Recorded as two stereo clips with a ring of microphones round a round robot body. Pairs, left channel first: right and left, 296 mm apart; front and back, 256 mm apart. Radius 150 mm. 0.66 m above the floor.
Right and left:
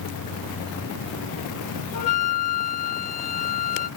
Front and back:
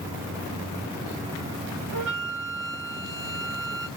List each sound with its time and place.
1.9 s a flute: 130° right, 0.8 m